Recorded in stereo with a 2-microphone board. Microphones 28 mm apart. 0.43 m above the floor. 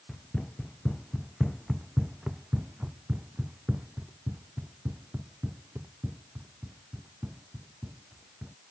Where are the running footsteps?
30° left (ahead or behind); by 8.5 s 80° right.